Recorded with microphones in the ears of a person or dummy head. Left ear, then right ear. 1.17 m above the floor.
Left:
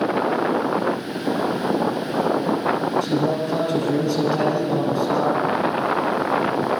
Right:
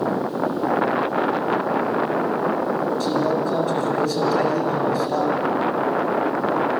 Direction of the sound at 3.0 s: 70° right (ahead or behind).